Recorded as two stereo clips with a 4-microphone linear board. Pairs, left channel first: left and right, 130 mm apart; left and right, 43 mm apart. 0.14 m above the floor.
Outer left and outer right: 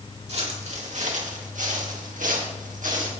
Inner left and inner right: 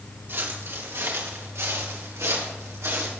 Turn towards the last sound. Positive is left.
turn(degrees=-85)